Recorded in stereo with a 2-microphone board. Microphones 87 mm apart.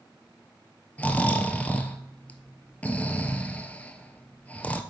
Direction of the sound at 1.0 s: 20° left (ahead or behind).